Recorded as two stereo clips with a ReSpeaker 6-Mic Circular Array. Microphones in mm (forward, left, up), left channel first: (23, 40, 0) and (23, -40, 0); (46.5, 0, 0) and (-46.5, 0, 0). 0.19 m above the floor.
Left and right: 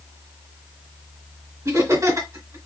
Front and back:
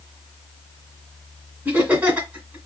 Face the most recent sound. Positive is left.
turn(degrees=-110)